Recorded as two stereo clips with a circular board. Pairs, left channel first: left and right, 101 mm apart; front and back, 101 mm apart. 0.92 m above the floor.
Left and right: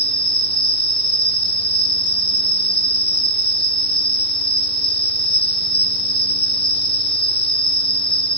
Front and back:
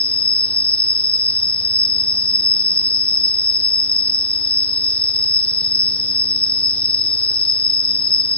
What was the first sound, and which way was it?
An insect, 75° left.